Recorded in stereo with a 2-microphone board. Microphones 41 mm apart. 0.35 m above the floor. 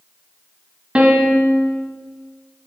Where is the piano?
25° right (ahead or behind), 1.3 m.